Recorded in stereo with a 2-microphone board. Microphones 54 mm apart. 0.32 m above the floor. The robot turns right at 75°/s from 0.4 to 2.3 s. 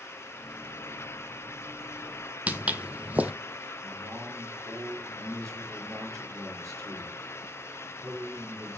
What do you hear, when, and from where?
2.5 s footsteps: 30° right (ahead or behind), 0.8 m
3.8 s a man speaking: 75° right (ahead or behind), 6.5 m